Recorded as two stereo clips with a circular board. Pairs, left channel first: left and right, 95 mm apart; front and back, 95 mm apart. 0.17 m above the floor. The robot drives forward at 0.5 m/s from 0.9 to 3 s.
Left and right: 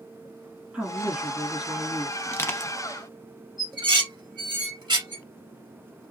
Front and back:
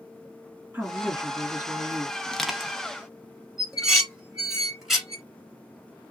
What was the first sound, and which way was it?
A woman speaking, 140° right.